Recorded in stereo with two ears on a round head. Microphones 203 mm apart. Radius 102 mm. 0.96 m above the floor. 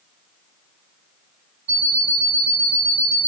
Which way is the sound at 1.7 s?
90° right.